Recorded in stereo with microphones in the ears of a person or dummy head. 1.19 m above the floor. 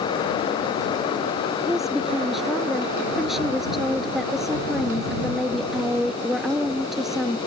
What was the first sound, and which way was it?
A woman speaking, centre (ahead or behind).